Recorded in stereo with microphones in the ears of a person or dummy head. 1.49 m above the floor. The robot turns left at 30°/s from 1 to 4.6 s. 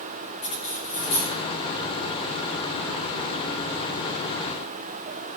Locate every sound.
0.4 s cutlery clinking: 35° left (ahead or behind), 2.5 m; by 1.4 s 45° left (ahead or behind), 2.5 m